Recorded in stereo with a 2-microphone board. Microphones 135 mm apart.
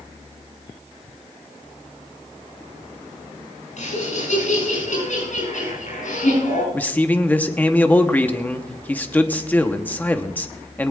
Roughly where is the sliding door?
No sliding door in this recording.